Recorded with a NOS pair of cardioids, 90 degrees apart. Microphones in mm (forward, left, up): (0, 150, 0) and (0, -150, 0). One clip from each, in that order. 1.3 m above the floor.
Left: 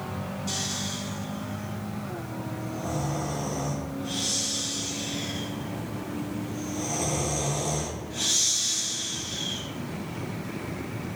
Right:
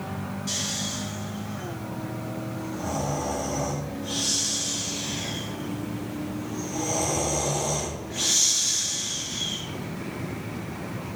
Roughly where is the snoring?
Ahead right.